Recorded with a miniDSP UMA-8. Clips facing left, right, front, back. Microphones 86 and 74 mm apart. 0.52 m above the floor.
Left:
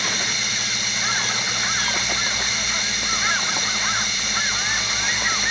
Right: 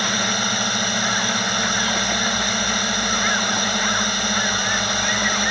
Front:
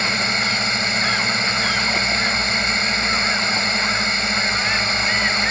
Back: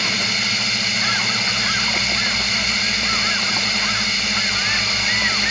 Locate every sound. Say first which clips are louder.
0.0 s a drone: right 5 dB, front 2 dB; 60° right